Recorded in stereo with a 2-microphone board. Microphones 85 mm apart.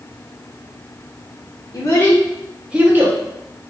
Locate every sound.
1.7 s a child speaking: 40° left (ahead or behind), 0.6 m; by 3.2 s 30° right (ahead or behind), 0.7 m